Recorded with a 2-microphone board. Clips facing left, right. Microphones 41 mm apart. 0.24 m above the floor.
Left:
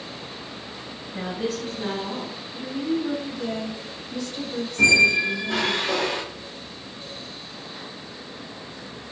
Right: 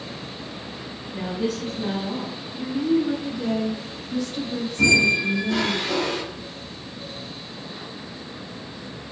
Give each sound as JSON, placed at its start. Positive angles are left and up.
{"t": 1.1, "sound": "a woman speaking", "side_deg": 20, "distance_m": 1.8}
{"t": 2.5, "sound": "a woman speaking", "side_deg": -15, "distance_m": 1.5}
{"t": 4.8, "sound": "a squeak", "side_deg": 45, "distance_m": 2.0}